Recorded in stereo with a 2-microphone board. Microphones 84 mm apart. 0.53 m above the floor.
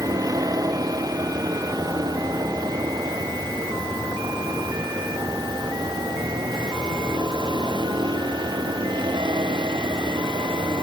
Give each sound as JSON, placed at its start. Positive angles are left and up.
{"t": 0.0, "sound": "a vehicle", "side_deg": -45}